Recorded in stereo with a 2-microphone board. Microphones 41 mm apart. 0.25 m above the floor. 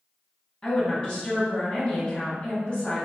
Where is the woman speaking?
25° left (ahead or behind), 2 m.